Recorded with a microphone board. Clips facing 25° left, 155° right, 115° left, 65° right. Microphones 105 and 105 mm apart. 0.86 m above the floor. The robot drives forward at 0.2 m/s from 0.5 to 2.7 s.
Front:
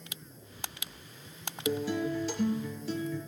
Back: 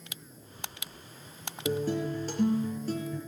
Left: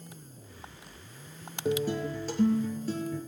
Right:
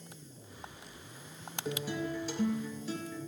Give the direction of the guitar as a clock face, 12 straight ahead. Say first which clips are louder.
Back 1 dB, left 7 dB; 7 o'clock.